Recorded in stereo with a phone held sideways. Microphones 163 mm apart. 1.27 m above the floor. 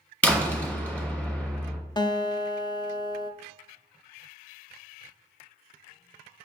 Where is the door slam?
5° left (ahead or behind), 1.7 m.